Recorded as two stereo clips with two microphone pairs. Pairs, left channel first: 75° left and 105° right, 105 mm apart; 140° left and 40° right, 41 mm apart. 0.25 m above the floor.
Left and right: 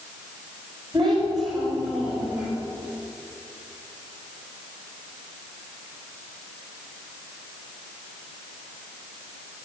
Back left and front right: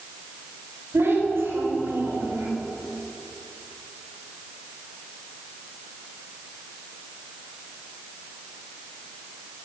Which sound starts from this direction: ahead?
A child speaking, at 0.9 s.